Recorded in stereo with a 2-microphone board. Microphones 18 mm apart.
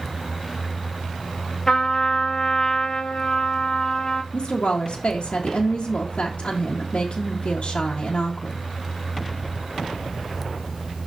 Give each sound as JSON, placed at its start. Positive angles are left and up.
{"t": 1.7, "sound": "a trumpet", "side_deg": 35, "distance_m": 0.9}
{"t": 4.3, "sound": "a woman speaking", "side_deg": 70, "distance_m": 1.1}